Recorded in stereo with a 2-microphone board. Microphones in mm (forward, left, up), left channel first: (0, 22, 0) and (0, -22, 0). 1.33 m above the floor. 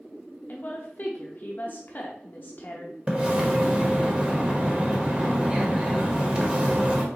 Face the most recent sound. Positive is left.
turn(degrees=-25)  # may be behind; listen again after turning